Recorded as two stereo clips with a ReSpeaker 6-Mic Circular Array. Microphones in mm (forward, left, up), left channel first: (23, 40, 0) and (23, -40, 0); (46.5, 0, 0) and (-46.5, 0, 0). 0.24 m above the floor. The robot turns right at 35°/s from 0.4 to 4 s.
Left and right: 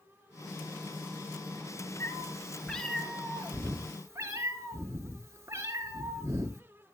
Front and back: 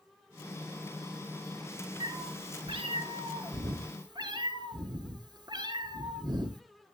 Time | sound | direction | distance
2.0 | a cat meowing | 145° left | 1.9 m